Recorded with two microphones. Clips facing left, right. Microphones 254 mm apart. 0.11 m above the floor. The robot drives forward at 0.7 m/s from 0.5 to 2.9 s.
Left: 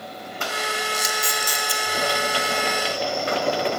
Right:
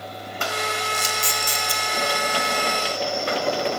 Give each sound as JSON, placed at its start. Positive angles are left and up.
{"t": 0.9, "sound": "a camera shutter", "side_deg": -35, "distance_m": 0.7}